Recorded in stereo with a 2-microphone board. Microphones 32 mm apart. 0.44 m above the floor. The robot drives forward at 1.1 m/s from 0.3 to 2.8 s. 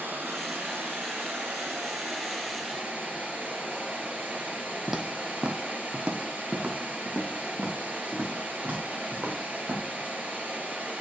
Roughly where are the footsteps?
Centre.